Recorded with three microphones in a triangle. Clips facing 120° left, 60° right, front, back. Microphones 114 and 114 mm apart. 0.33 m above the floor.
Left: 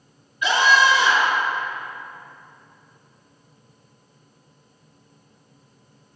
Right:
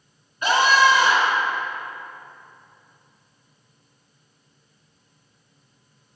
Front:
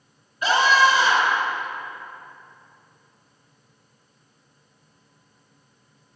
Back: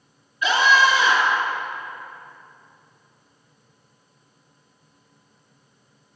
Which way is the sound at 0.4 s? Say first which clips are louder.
Right 1 dB, even; 25° right.